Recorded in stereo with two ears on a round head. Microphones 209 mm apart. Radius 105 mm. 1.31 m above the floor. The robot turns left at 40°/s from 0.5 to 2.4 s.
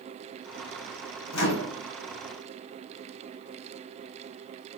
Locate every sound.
1.3 s a microwave: 60° left (ahead or behind), 0.8 m; by 1.8 s 45° left (ahead or behind), 0.8 m